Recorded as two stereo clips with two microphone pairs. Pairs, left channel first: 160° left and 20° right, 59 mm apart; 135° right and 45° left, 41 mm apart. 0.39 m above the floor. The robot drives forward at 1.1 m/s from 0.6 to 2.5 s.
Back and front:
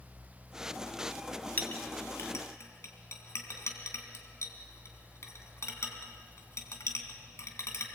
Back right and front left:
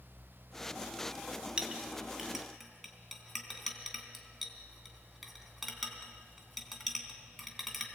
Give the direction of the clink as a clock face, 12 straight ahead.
8 o'clock.